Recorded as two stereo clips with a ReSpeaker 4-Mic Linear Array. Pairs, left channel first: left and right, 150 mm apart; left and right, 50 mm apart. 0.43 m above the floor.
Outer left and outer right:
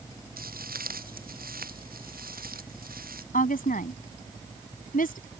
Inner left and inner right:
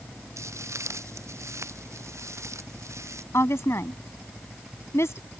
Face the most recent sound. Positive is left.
turn(degrees=70)  # may be behind; listen again after turning